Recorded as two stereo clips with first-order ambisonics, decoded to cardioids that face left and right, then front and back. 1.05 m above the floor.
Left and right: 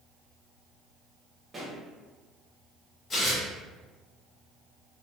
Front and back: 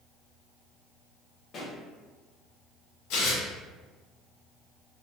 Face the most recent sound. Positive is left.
turn(degrees=20)